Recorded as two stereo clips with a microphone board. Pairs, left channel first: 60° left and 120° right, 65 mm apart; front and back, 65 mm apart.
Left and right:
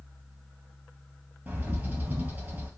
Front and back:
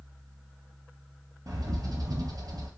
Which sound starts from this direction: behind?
A bird, at 1.5 s.